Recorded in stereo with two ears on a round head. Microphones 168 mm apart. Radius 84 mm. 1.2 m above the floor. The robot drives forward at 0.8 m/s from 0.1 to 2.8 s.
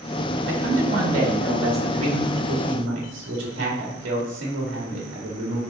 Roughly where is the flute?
No flute in this recording.